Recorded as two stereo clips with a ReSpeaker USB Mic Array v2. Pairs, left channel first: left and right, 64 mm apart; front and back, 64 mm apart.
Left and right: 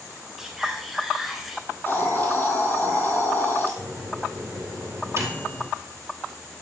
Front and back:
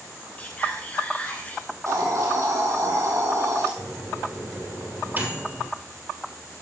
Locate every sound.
0.4 s whispering: 10° right, 1.3 m
1.7 s a hiss: 145° left, 1.5 m
3.8 s a microwave: 125° right, 2.5 m